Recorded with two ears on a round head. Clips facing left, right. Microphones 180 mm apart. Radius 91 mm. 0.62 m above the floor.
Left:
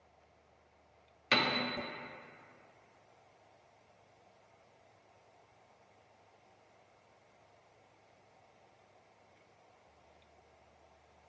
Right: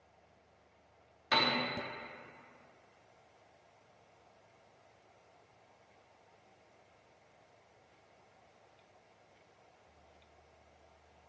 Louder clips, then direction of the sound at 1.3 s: Even; 30° left (ahead or behind).